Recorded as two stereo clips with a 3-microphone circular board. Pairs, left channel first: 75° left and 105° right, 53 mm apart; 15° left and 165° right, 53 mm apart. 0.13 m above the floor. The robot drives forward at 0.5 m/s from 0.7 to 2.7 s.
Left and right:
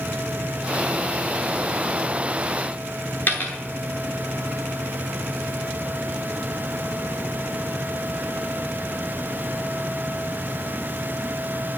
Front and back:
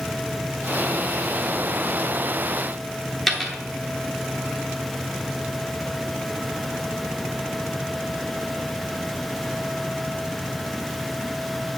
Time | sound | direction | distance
3.3 | a dropped coin | 105° left | 1.0 m